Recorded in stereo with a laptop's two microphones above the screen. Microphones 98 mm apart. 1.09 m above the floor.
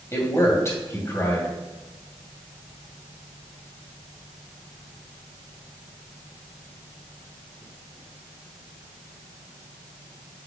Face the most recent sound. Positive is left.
turn(degrees=30)  # may be behind; listen again after turning